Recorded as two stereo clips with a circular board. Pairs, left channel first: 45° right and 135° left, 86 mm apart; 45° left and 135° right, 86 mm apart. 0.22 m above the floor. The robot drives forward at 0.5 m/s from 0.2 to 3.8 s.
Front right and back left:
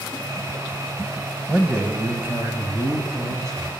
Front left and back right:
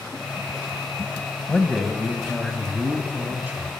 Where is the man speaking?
90° left, 1.1 m; by 3.7 s 165° left, 1.6 m.